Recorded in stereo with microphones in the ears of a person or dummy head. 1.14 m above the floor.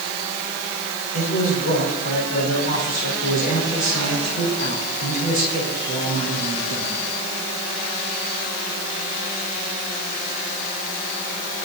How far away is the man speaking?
About 5.5 m.